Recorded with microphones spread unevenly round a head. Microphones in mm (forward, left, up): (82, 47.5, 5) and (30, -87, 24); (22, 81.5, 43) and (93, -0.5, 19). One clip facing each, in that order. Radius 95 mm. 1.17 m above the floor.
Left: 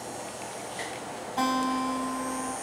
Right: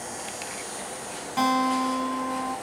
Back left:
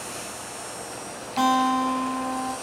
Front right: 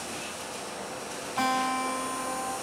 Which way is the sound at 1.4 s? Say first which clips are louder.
Right 4 dB, back left 7 dB; 160° right.